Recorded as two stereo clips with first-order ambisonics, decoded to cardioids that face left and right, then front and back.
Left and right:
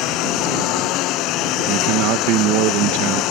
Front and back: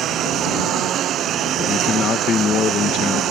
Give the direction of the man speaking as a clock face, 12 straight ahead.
2 o'clock.